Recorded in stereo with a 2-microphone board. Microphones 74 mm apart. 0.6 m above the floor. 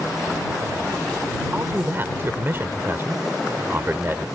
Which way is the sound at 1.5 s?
30° right (ahead or behind).